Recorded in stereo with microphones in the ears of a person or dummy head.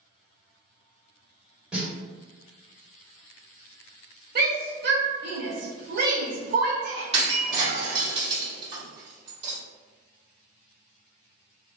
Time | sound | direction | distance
1.7 | a snare drum | 10° right (ahead or behind) | 1.9 m
4.3 | a shout | 50° right (ahead or behind) | 1.0 m
7.1 | breaking glass | 35° right (ahead or behind) | 1.8 m